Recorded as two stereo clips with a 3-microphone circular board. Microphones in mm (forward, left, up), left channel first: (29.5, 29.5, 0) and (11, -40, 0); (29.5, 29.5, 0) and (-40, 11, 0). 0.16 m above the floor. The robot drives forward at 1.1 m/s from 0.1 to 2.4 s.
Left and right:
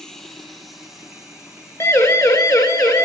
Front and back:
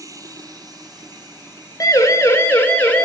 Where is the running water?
160° left, 1.3 m; by 3.0 s 175° left, 3.5 m.